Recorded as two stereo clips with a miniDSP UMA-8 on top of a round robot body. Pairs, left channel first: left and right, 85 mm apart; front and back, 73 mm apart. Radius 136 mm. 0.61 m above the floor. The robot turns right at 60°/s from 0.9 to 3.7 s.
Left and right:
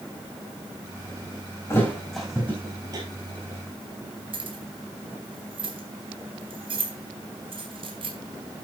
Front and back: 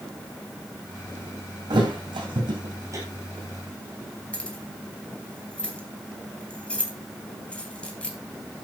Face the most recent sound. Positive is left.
turn(degrees=-75)